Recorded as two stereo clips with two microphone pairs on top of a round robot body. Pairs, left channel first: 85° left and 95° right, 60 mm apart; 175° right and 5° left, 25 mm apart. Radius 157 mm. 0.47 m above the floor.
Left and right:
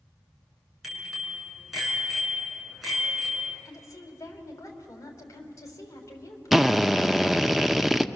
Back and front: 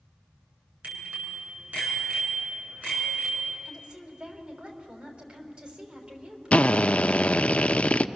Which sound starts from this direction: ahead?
A bicycle bell, at 0.8 s.